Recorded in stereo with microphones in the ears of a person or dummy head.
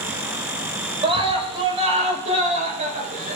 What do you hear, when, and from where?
1.0 s a scream: 25° right (ahead or behind), 5 m; by 3.4 s 40° right (ahead or behind), 5 m